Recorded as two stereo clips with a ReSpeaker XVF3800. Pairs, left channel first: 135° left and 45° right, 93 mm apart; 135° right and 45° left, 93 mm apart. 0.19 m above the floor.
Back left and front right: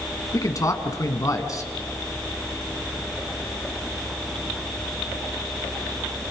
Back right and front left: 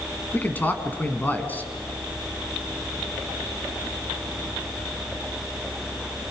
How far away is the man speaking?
About 2 m.